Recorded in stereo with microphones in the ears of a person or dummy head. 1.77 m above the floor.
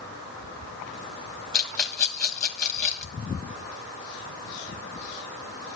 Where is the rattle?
10° left (ahead or behind), 1.4 m.